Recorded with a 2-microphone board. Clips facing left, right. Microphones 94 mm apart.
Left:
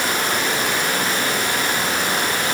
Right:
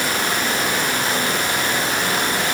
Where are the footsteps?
No footsteps in this recording.